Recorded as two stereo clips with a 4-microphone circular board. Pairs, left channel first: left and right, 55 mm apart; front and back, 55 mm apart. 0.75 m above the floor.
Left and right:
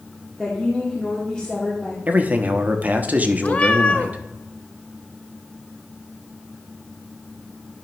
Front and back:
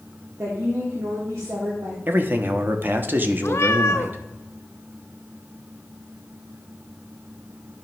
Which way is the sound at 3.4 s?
35° left.